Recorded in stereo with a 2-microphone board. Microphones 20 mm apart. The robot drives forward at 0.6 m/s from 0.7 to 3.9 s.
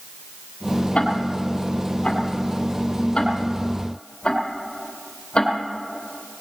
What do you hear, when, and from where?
0.9 s ticking: 60° left (ahead or behind), 2.5 m; by 5.5 s 40° left (ahead or behind), 3 m